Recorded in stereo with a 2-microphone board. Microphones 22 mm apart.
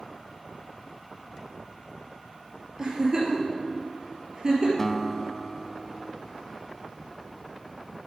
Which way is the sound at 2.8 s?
35° right (ahead or behind).